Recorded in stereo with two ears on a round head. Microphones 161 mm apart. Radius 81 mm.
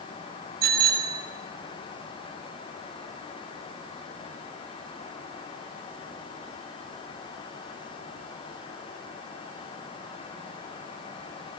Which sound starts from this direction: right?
A bicycle bell, at 0.6 s.